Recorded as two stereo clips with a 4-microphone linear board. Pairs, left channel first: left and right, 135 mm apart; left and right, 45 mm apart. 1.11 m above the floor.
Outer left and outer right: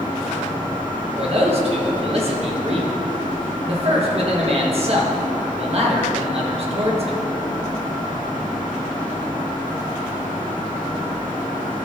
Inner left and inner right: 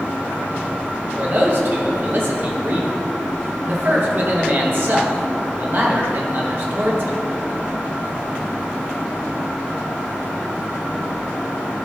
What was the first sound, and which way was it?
A man speaking, 50° right (ahead or behind).